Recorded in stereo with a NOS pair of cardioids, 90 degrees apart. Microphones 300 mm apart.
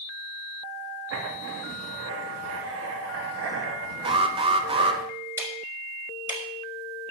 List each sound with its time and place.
1.1 s writing: 50° right, 2.5 m
4.0 s an alarm: 20° right, 1.4 m
5.4 s ticking: 10° right, 4 m